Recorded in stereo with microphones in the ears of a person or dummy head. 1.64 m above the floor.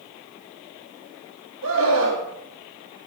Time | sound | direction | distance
1.6 | a scream | 70° right (ahead or behind) | 5.5 m